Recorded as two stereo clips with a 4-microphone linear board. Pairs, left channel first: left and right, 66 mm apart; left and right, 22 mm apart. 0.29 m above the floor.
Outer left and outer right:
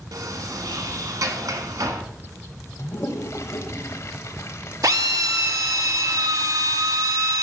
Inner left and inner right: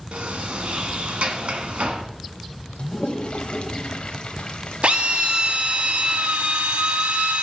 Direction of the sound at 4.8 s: 65° right (ahead or behind).